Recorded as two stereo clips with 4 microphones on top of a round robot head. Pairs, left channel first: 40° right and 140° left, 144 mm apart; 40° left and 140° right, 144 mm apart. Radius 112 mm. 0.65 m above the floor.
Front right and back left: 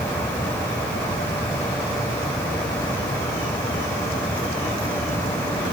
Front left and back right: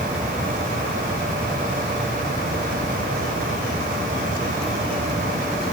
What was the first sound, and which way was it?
Only background noise.